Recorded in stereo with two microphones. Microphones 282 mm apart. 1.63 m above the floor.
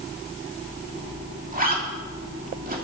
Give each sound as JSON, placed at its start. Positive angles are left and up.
{"t": 1.5, "sound": "a zipper", "side_deg": -30, "distance_m": 3.0}